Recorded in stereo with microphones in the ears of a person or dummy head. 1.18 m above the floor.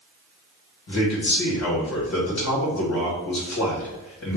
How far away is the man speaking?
About 1.6 m.